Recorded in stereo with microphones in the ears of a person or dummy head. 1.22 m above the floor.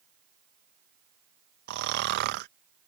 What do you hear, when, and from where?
1.7 s snoring: 50° right (ahead or behind)